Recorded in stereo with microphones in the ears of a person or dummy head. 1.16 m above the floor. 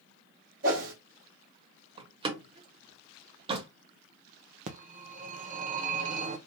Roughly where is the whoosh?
Right.